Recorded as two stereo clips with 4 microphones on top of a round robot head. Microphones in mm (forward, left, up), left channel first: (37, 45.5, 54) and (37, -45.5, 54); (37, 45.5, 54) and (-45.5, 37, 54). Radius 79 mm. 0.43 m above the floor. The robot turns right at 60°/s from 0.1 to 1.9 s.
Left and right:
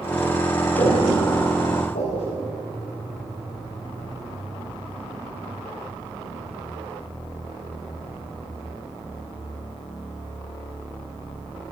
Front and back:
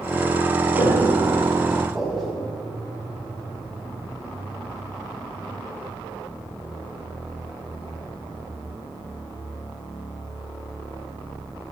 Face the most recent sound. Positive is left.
turn(degrees=95)